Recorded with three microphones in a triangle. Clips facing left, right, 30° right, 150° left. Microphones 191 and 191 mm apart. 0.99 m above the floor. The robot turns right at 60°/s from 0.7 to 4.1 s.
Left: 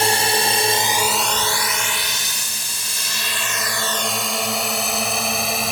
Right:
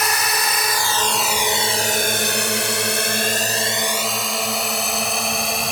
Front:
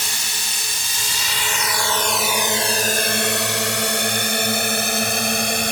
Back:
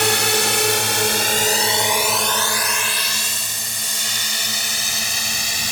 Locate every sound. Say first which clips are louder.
0.0 s a drone: left 4 dB, back 16 dB; 150° left; by 5.7 s straight ahead